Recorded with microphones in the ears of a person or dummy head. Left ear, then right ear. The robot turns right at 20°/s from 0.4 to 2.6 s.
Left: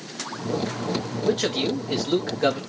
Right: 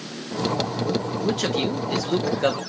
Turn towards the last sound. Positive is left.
turn(degrees=-25)  # may be behind; listen again after turning